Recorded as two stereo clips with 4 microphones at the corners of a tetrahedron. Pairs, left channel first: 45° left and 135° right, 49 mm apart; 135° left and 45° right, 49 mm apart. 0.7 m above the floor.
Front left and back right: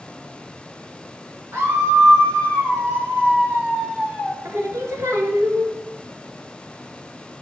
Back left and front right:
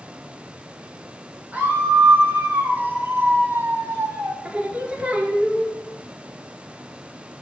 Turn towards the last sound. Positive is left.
turn(degrees=-115)